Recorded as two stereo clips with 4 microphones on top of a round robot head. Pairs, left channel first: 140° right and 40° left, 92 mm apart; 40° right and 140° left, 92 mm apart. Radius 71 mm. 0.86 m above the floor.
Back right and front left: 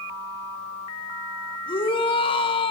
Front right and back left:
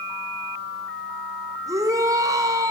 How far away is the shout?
About 3.5 m.